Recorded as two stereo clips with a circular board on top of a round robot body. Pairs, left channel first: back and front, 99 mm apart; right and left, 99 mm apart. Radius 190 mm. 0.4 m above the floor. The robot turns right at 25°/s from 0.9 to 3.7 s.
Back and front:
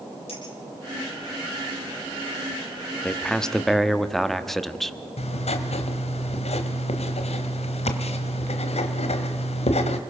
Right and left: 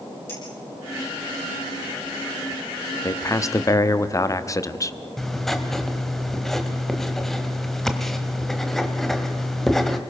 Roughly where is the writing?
Behind.